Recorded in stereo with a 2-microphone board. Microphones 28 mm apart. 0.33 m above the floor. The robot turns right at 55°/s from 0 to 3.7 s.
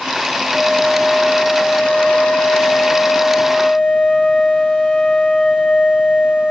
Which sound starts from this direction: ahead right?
A flute, at 0.5 s.